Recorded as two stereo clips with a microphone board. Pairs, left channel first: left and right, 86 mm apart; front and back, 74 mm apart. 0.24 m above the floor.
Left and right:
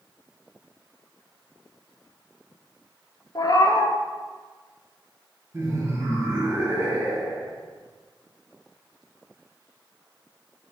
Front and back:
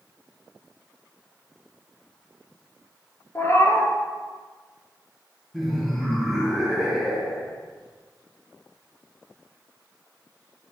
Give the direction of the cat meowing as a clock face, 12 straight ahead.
10 o'clock.